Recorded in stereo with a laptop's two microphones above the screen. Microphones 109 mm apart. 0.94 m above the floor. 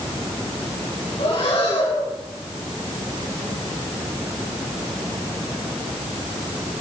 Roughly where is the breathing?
Left.